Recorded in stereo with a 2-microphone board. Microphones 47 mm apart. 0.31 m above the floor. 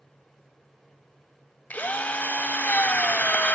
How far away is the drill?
About 0.6 m.